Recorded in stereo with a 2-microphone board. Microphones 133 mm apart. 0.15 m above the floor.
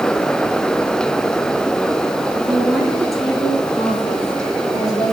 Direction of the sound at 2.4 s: 15° right (ahead or behind).